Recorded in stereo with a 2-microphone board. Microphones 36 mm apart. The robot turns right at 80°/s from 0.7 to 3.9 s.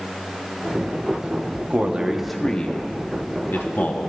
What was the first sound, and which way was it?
A man speaking, 50° right (ahead or behind).